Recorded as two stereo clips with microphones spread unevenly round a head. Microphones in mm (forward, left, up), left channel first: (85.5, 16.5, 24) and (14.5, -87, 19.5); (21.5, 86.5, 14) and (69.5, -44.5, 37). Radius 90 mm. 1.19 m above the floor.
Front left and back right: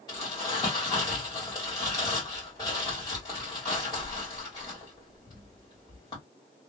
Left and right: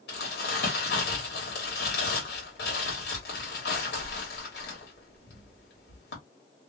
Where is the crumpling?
125° left, 1.3 m.